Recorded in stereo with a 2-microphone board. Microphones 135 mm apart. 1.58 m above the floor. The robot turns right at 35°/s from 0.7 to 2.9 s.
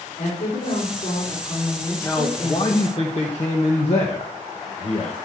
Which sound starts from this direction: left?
A woman speaking, at 0.2 s.